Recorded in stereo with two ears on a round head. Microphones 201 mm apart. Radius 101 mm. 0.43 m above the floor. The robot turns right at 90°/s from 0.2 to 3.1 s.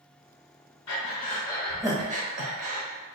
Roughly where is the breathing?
Left.